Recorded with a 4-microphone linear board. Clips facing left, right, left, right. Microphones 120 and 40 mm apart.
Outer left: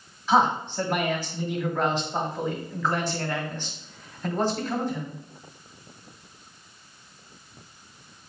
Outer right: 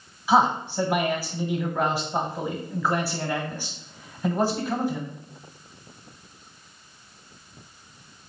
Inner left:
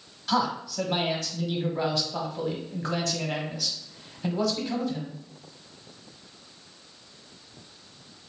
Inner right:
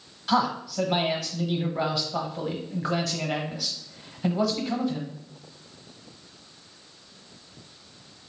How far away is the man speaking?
About 1.0 m.